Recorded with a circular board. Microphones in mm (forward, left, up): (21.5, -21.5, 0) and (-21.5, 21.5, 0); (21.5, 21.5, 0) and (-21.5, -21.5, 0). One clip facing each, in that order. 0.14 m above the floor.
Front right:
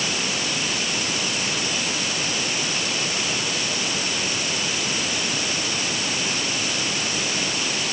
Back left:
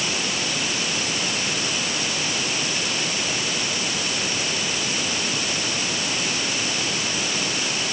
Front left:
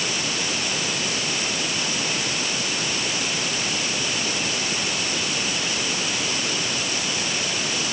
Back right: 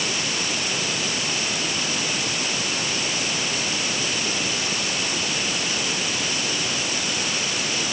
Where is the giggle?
No giggle in this recording.